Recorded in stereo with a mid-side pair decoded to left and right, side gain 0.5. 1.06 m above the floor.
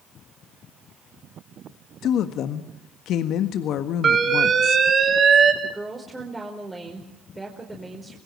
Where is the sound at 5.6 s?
15° right, 5 m.